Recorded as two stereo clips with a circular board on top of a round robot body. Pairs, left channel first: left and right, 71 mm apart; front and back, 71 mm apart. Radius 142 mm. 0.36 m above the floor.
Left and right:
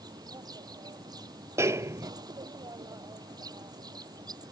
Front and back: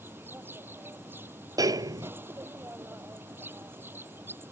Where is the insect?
120° right.